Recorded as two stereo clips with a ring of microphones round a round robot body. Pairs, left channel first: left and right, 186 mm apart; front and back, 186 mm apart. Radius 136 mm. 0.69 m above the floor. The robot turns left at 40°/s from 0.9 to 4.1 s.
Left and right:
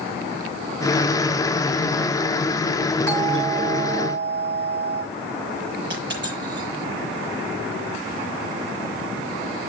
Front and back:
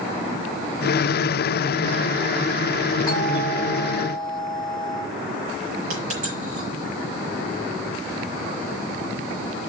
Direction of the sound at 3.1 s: 75° right.